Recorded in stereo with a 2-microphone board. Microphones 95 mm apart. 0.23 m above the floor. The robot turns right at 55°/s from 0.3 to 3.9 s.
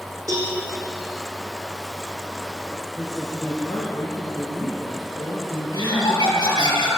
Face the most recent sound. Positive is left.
turn(degrees=50)  # may be behind; listen again after turning